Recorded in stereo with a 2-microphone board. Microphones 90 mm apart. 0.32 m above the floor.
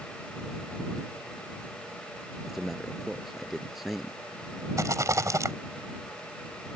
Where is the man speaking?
5° right (ahead or behind).